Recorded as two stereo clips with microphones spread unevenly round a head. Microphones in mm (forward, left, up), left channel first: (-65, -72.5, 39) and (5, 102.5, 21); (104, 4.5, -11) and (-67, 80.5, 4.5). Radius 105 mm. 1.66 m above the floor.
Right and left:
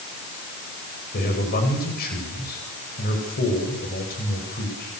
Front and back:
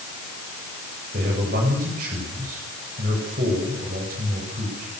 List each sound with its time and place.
1.1 s a man speaking: 150° right, 9.5 m